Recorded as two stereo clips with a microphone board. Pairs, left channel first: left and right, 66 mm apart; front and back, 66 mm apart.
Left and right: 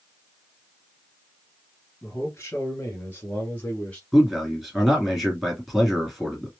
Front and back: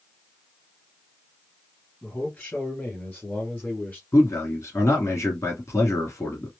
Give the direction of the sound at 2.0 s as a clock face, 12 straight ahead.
10 o'clock.